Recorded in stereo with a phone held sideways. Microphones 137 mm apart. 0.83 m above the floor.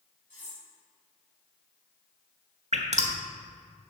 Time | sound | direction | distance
0.3 | cutlery clinking | 60° right (ahead or behind) | 3.5 m
2.7 | dripping | 55° right (ahead or behind) | 1.2 m